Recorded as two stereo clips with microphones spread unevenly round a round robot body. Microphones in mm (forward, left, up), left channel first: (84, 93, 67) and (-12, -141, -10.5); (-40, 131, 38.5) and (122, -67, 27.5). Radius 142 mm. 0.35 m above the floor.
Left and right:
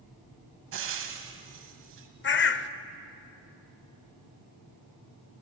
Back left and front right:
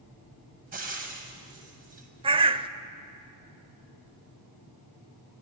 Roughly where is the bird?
Ahead.